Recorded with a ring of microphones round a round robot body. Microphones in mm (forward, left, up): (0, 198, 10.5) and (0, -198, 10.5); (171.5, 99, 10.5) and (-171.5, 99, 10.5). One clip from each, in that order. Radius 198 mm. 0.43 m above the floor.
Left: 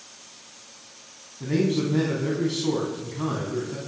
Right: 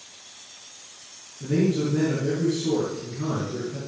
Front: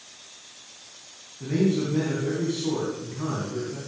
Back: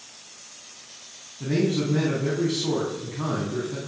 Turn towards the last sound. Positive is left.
turn(degrees=120)